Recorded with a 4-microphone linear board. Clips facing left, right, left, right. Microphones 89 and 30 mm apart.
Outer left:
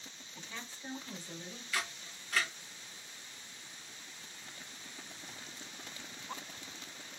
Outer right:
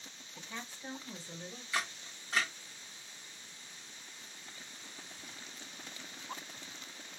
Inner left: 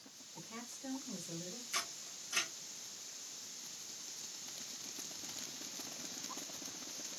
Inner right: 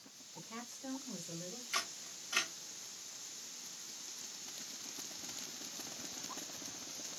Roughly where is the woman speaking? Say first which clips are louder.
Outer right 2 dB, inner right 1 dB; centre.